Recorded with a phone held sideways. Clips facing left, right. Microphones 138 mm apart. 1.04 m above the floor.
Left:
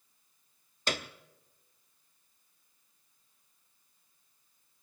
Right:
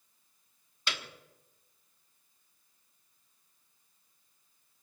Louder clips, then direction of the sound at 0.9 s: Left 6 dB; 45° left (ahead or behind).